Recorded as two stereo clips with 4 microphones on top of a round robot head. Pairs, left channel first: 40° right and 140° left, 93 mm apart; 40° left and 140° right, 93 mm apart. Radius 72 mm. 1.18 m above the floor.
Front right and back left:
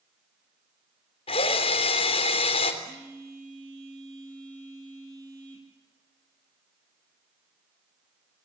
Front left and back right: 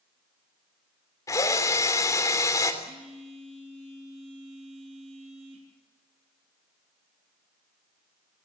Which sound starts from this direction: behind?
A phone buzzing, at 2.8 s.